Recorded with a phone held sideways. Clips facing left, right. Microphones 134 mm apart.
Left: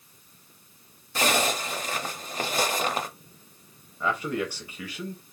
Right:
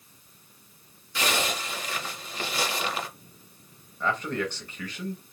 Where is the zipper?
45° left (ahead or behind), 0.7 m.